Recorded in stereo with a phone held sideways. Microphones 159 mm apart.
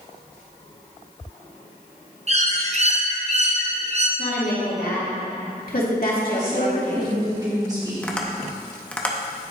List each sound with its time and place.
2.3 s a bird: 45° right (ahead or behind), 0.7 m
4.2 s a woman speaking: 65° left (ahead or behind), 2 m
6.3 s a woman speaking: 25° right (ahead or behind), 2.5 m
8.0 s tapping: 10° left (ahead or behind), 0.7 m